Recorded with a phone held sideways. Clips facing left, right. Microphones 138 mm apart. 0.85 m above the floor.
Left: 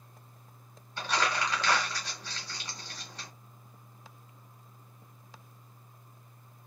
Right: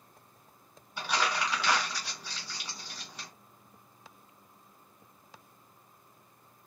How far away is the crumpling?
About 1.4 m.